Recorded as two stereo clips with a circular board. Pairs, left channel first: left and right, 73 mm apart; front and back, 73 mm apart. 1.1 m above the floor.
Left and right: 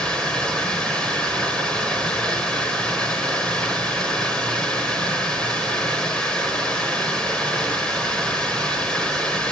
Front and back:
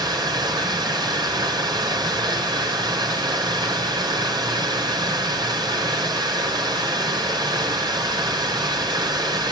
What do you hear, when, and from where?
0.0 s running water: 170° left, 4 m